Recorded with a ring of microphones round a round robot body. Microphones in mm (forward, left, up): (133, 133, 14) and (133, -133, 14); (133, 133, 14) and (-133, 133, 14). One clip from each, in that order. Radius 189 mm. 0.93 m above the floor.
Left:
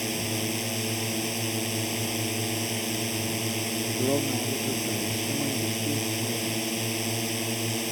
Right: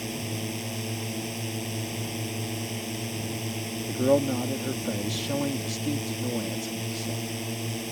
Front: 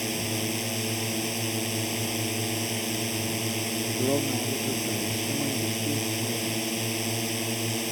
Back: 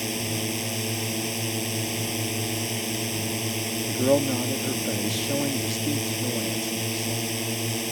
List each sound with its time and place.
0.0 s a drone: 65° left
3.9 s a man speaking: 130° right